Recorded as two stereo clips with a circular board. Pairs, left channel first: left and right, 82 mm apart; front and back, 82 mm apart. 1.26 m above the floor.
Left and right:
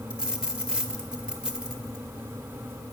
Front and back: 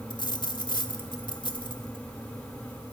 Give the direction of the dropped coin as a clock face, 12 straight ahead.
12 o'clock.